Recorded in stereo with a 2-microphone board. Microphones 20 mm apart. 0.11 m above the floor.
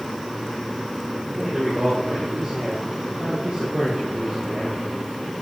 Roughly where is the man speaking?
Right.